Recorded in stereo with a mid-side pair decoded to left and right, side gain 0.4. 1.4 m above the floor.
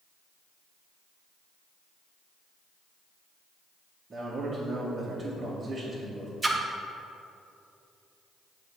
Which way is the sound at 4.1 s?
40° right.